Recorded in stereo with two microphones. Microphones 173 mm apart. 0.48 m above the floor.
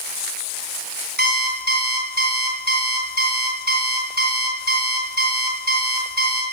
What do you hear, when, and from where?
1.2 s an alarm clock: 65° right (ahead or behind), 2 m